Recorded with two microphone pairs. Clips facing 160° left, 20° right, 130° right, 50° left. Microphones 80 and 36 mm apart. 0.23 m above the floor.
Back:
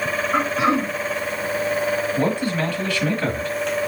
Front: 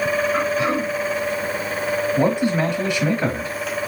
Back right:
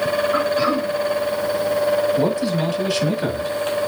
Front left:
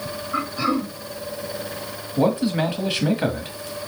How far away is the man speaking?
About 1.1 m.